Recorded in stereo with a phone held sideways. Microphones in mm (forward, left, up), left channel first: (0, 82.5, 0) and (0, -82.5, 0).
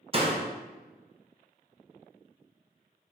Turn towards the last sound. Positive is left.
turn(degrees=-35)  # may be behind; listen again after turning